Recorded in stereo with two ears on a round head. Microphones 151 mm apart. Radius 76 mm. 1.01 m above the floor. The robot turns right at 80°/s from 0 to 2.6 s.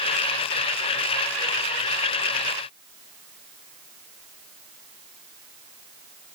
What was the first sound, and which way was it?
Only background noise.